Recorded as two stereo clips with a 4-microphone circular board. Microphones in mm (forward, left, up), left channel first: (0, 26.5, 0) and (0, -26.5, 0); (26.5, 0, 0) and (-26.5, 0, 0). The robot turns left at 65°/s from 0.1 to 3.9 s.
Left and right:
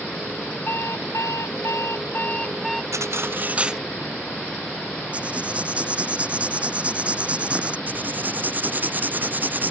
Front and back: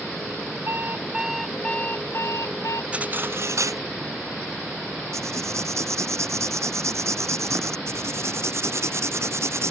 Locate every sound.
0.7 s an alarm clock: 135° left; by 2.8 s 5° right
2.9 s cutlery clinking: 110° right; by 3.8 s 170° right
5.1 s writing: 155° right
7.9 s writing: 145° right